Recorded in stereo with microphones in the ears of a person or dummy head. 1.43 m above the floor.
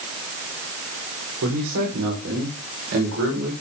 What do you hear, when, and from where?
1.4 s a man speaking: 90° right, 4.5 m; by 3.5 s 75° right (ahead or behind), 5.5 m